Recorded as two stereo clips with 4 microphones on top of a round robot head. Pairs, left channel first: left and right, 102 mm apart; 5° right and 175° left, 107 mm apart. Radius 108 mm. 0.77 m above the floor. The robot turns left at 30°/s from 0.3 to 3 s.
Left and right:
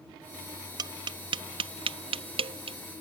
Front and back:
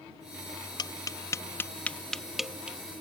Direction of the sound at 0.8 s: 50° right.